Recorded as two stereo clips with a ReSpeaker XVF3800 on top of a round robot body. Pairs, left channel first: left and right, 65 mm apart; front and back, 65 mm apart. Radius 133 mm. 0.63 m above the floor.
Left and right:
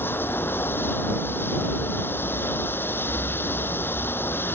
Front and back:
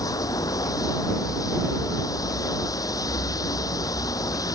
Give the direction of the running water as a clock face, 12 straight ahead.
11 o'clock.